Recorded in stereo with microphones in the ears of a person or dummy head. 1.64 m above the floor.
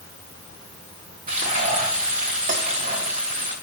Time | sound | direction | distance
1.3 | frying | 30° right (ahead or behind) | 1.3 m